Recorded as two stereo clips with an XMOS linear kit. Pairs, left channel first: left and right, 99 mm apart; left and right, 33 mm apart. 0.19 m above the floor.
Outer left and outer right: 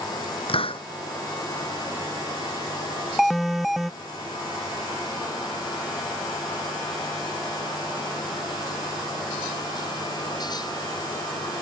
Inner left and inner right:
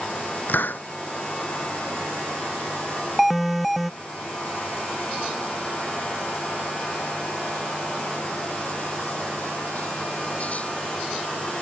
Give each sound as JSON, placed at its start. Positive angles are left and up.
{"t": 0.5, "sound": "a hiss", "side_deg": 70}
{"t": 3.2, "sound": "an alarm", "side_deg": 0}